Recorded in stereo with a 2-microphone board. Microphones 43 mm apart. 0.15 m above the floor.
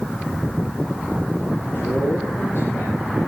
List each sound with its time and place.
1.6 s a man speaking: 65° left (ahead or behind), 4 m